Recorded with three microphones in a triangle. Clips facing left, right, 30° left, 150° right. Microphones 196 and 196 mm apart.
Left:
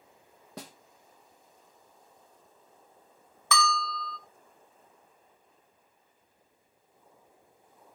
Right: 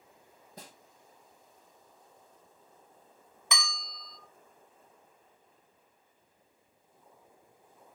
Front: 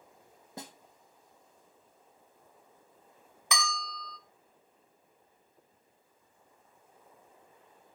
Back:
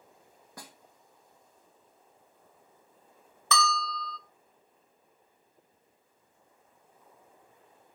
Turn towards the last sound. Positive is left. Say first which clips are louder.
# left 11 dB, back 6 dB
turn(degrees=-35)